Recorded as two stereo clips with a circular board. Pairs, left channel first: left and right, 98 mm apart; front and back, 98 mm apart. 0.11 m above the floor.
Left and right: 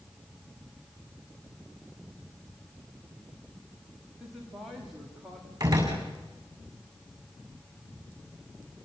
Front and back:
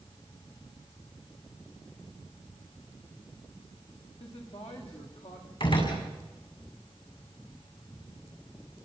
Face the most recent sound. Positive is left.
turn(degrees=-30)